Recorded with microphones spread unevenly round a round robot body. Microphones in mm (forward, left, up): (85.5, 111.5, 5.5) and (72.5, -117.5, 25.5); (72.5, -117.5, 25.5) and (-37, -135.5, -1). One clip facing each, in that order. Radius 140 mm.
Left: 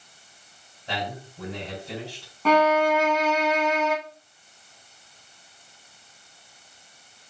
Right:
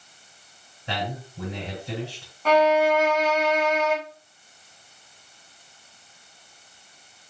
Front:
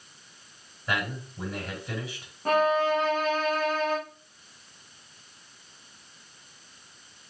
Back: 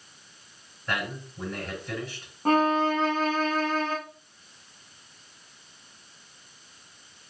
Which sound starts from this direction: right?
A man speaking, at 0.9 s.